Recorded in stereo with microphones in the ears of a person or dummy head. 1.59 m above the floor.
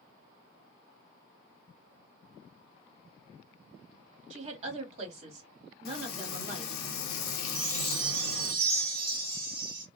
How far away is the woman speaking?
About 1.4 m.